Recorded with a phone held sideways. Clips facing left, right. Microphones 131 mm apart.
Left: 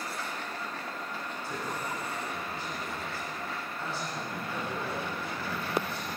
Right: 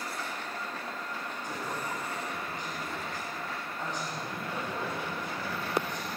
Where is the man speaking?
15° right (ahead or behind), 6.5 m.